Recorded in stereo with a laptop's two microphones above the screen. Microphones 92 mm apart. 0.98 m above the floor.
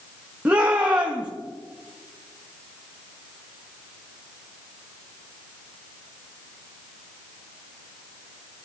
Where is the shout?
15° right (ahead or behind), 1.6 m.